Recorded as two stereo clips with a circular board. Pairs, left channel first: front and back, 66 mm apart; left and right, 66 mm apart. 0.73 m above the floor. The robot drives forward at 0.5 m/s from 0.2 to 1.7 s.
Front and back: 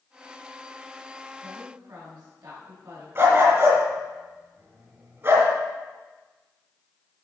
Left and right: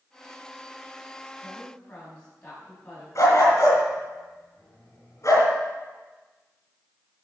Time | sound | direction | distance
1.4 | a woman speaking | 160° left | 4 m
3.1 | a dog barking | 130° left | 3 m